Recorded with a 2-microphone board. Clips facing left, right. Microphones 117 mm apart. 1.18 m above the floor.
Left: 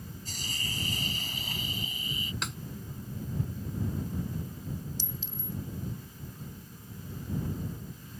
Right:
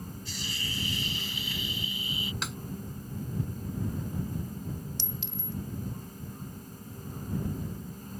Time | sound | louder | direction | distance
0.2 | a hiss | left 1 dB | 45° left (ahead or behind) | ?
2.4 | a snare drum | right 1 dB | centre (ahead or behind) | ?
5.0 | a clink | right 2 dB | 75° right (ahead or behind) | ?